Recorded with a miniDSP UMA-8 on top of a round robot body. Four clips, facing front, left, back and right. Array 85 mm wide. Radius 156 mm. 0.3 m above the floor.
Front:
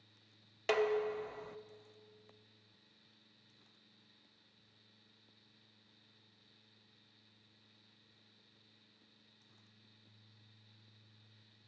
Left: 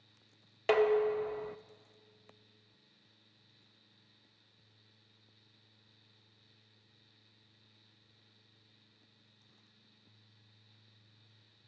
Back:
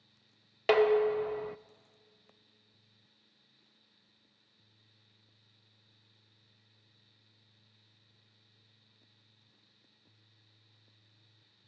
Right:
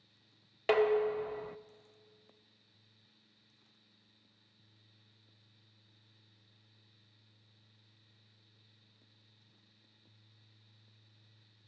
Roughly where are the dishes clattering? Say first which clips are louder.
Left 1 dB, back 8 dB; behind.